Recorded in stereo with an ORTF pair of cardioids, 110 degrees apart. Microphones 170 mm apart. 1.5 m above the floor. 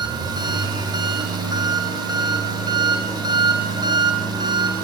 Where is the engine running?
25° right, 4 m.